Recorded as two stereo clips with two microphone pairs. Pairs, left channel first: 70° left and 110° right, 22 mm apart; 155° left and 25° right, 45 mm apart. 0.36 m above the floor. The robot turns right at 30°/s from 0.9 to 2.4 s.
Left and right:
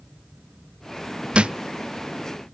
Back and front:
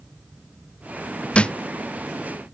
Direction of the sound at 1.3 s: 140° right.